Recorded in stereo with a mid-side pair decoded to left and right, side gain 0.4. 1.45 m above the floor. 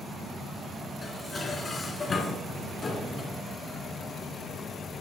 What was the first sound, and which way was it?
Dishes clattering, 40° left.